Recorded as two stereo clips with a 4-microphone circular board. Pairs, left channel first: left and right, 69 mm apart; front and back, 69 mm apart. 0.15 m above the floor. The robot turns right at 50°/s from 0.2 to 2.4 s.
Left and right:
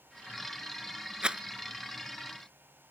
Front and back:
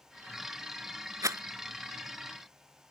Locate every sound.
1.2 s a rattle: 170° right; by 1.4 s 160° right